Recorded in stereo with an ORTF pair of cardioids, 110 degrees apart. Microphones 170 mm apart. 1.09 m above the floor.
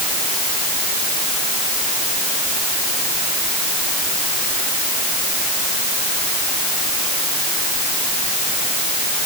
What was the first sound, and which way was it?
Only background noise.